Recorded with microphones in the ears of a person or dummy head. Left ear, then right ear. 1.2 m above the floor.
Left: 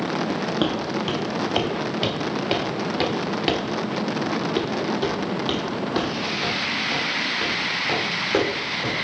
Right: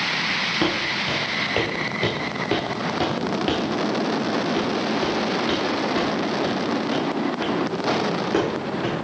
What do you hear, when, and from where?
0.6 s footsteps: 15° left (ahead or behind), 2 m; by 9.1 s centre (ahead or behind), 4.5 m